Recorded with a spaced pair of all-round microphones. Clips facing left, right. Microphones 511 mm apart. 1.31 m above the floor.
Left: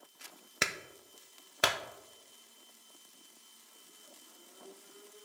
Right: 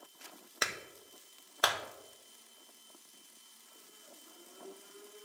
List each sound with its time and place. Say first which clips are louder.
0.6 s a clap: left 2 dB; 50° left (ahead or behind), 0.6 m